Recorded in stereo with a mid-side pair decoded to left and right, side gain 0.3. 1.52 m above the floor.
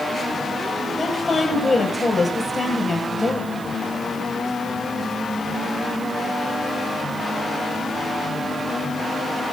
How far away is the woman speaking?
About 9.5 m.